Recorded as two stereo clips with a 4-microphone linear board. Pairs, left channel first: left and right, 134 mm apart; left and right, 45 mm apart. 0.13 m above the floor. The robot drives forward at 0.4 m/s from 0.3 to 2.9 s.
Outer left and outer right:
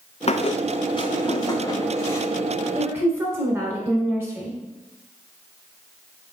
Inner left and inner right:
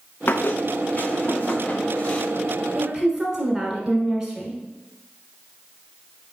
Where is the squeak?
50° left (ahead or behind), 0.6 m; by 2.3 s 20° left (ahead or behind), 1.2 m.